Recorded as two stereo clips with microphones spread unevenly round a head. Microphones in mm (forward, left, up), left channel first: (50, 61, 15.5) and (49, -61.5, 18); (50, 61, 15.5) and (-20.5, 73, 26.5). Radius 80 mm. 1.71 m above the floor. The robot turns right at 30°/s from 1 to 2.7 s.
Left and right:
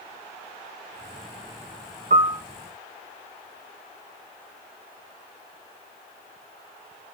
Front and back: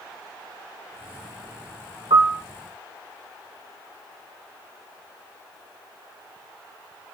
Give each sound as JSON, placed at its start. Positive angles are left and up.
{"t": 2.1, "sound": "a piano", "azimuth_deg": -135, "distance_m": 0.5}